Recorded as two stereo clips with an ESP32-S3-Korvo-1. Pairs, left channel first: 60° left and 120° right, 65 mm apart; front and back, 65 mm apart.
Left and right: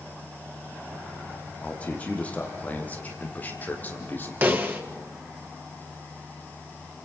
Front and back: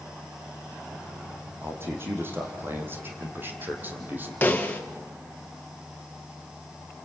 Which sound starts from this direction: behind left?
A man speaking, at 1.6 s.